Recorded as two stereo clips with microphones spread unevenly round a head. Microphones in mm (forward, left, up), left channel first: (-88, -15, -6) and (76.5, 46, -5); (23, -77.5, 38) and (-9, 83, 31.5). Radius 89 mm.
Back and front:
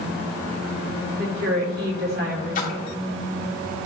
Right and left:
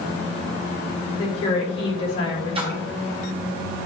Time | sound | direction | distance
1.2 | a woman speaking | 15° right | 3.5 m
2.5 | a splash | 160° left | 2 m